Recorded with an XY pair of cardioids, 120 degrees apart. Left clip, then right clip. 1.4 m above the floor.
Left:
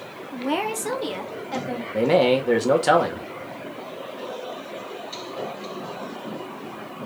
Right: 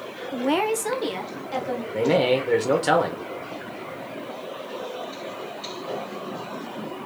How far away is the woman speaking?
About 0.7 m.